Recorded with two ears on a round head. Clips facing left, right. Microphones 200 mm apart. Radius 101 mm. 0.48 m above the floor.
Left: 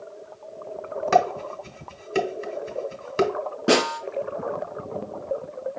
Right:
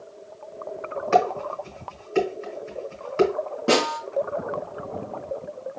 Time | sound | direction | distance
1.1 | dishes clattering | 45° left (ahead or behind) | 1.4 m
3.7 | a snare drum | 20° left (ahead or behind) | 2.5 m